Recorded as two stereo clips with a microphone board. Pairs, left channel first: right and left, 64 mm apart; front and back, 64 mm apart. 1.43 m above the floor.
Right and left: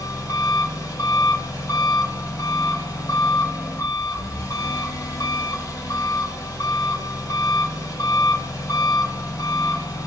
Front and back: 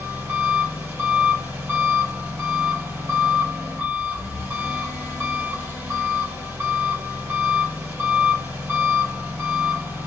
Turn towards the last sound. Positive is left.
turn(degrees=-130)